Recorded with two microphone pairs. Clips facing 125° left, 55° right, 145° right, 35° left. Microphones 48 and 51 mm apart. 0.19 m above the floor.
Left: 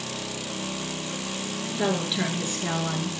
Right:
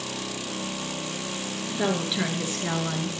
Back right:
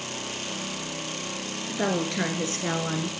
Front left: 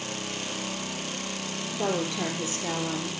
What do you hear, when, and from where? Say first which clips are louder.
1.7 s a woman speaking: even, back right 2 dB; 140° right, 3 m